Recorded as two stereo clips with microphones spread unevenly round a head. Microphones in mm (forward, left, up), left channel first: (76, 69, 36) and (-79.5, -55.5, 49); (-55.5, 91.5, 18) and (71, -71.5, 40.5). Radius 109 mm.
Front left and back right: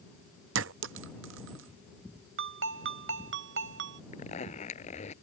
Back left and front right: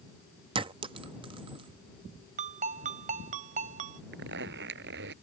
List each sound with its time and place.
0.6 s a clink: 115° right
2.4 s a ringtone: 110° right
4.1 s a zipper: 20° right